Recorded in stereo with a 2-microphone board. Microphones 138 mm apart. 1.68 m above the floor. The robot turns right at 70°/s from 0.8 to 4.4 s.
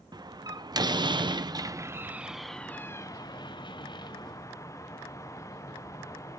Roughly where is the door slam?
Right.